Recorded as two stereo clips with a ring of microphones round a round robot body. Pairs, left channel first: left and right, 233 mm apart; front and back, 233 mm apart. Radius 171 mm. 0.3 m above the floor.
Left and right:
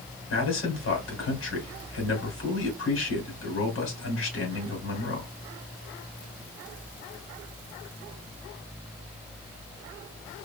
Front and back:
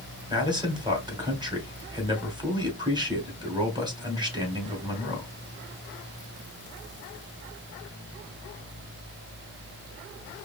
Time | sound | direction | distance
0.3 | a man speaking | 110° left | 2.5 m